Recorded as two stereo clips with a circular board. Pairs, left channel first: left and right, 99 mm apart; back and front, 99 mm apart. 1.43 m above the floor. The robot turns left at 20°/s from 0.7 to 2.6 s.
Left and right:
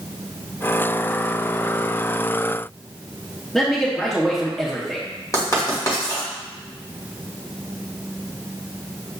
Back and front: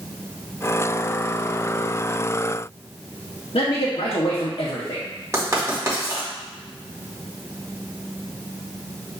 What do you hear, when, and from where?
3.5 s a man speaking: 175° left, 0.7 m
5.3 s writing: 50° left, 1.3 m